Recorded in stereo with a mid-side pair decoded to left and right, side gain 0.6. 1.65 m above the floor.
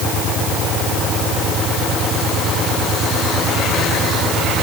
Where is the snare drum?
I don't hear a snare drum.